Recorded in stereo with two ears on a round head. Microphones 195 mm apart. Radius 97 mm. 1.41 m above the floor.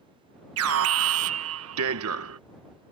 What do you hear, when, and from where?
0.6 s an alarm: 65° right (ahead or behind)